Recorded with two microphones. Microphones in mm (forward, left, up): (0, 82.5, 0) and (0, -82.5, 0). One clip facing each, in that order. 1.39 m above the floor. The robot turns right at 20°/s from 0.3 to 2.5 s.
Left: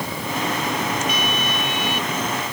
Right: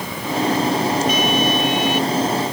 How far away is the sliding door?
I don't hear a sliding door.